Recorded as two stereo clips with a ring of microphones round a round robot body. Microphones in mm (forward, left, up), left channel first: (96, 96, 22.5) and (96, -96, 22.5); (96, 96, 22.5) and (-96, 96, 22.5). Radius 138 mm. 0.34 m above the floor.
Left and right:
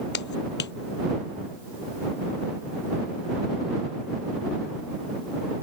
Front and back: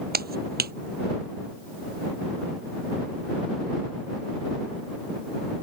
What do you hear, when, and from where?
0.1 s a clap: 145° left